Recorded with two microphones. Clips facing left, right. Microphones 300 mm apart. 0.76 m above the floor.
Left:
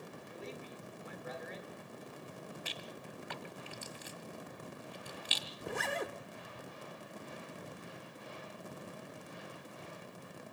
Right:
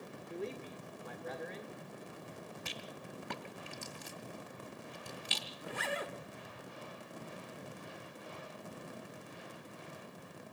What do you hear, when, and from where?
0.3 s a man speaking: 60° right (ahead or behind), 2.5 m
2.6 s a rattle: 55° right (ahead or behind), 1.5 m
5.6 s a zipper: 55° left (ahead or behind), 0.8 m